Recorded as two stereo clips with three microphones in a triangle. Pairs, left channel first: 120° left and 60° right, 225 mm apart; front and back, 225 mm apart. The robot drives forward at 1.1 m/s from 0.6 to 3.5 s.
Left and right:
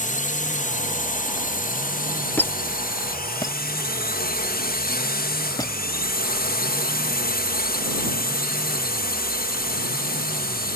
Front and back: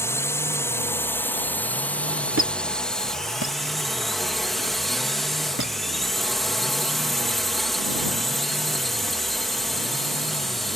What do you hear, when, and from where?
0.0 s a drone: 75° left; by 10.8 s 90° left
2.4 s a squeak: 160° right; by 5.8 s 170° right